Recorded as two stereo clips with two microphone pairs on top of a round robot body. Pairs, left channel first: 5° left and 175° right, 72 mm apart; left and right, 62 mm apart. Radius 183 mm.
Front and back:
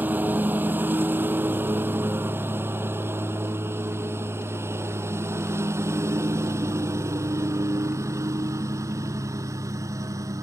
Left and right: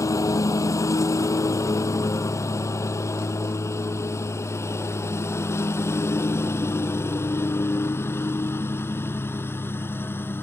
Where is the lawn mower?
120° left; by 10.4 s 140° left.